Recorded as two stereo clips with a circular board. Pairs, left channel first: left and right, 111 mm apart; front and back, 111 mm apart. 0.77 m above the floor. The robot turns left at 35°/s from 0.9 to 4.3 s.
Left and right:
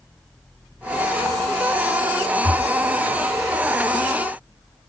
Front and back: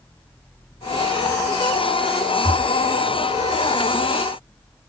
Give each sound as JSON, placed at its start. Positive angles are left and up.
{"t": 2.4, "sound": "breathing", "azimuth_deg": 95, "distance_m": 1.0}